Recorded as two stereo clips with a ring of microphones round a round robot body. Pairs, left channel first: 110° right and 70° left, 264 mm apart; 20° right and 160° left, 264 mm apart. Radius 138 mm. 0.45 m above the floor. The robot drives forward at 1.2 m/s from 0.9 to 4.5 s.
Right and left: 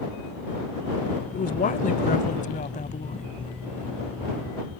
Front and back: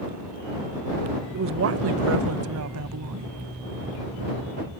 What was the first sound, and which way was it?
A woman speaking, 165° right.